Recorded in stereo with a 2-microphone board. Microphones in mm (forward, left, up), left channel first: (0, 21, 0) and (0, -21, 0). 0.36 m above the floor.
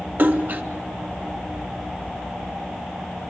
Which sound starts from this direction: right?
A splash, at 0.2 s.